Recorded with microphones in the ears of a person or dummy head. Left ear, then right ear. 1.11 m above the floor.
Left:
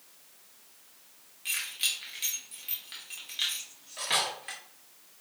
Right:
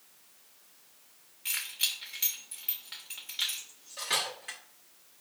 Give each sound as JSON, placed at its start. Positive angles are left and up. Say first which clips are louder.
{"t": 1.4, "sound": "keys jangling", "louder": "left 1 dB", "side_deg": -15, "distance_m": 1.0}
{"t": 3.6, "sound": "cutlery clinking", "louder": "left 2 dB", "side_deg": 0, "distance_m": 0.9}